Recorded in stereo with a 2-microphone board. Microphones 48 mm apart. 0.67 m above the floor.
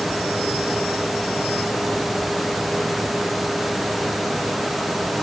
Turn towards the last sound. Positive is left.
No sound to turn to.